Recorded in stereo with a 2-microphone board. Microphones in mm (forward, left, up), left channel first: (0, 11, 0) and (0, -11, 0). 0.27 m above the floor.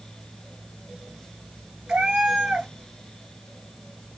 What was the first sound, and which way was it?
A cat meowing, 55° right (ahead or behind).